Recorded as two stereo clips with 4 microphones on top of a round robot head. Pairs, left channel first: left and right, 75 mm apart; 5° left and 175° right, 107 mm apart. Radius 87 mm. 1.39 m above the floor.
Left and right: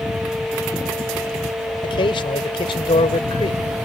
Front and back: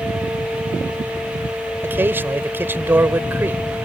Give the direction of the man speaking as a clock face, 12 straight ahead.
8 o'clock.